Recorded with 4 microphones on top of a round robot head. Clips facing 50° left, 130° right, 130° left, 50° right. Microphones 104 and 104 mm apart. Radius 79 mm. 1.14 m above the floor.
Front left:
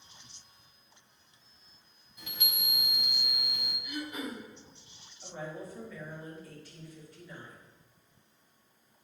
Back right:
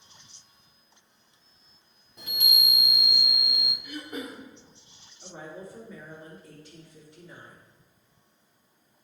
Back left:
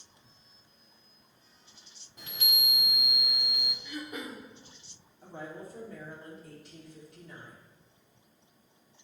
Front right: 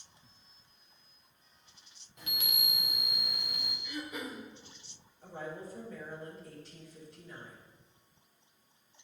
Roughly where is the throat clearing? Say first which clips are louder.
Even, even; behind.